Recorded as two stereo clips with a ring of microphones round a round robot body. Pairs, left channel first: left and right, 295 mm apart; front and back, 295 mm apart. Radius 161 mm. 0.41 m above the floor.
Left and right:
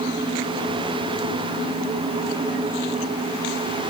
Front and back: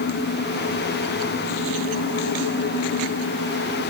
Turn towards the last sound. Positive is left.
No sound to turn to.